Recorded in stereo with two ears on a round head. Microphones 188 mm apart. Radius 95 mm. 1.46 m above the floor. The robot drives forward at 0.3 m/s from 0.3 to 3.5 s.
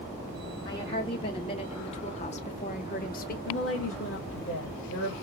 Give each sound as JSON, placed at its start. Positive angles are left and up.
{"t": 0.7, "sound": "a woman speaking", "side_deg": 20, "distance_m": 1.5}
{"t": 3.5, "sound": "a woman speaking", "side_deg": 65, "distance_m": 1.8}